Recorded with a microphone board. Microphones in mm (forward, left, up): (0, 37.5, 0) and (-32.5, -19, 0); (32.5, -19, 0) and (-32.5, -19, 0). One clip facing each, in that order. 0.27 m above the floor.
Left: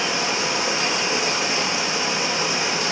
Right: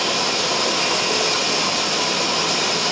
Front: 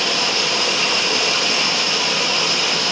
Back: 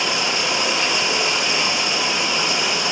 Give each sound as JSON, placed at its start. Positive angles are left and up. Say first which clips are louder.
{"t": 0.0, "sound": "running water", "louder": "right 1 dB, front 1 dB", "azimuth_deg": -105, "distance_m": 8.0}